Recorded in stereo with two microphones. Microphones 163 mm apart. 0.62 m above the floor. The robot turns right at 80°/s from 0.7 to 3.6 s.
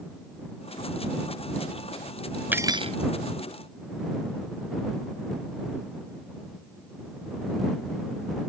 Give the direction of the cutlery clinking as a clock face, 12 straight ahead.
6 o'clock.